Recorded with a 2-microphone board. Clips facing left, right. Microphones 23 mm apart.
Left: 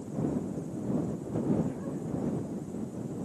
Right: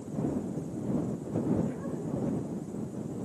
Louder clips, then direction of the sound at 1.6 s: Right 1 dB; 15° right (ahead or behind).